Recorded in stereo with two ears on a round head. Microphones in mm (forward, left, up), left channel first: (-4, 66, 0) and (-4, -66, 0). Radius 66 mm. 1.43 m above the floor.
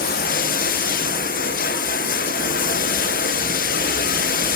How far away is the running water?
About 0.7 m.